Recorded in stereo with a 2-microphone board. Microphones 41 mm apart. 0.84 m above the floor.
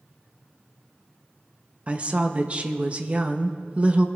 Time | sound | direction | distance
1.9 | a woman speaking | 30° right (ahead or behind) | 0.8 m